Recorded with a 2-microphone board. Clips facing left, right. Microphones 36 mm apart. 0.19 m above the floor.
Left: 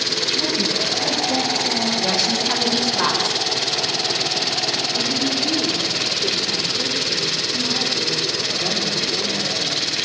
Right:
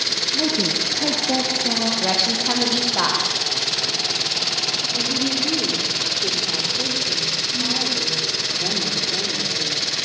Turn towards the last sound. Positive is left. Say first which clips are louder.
# left 1 dB
turn(degrees=-10)  # may be behind; listen again after turning